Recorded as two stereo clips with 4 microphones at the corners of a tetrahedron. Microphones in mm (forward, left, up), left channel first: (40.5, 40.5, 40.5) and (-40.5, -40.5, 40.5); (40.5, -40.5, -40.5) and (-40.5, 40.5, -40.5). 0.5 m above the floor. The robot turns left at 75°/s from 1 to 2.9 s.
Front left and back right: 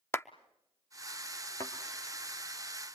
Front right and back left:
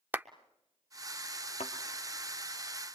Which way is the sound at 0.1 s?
85° left.